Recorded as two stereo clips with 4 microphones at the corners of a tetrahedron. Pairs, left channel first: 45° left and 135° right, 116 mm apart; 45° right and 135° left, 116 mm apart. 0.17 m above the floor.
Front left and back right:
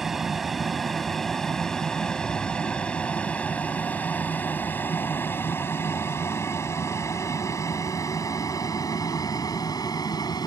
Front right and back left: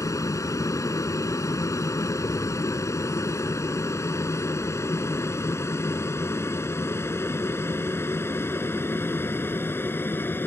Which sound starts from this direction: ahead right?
An aircraft, at 0.0 s.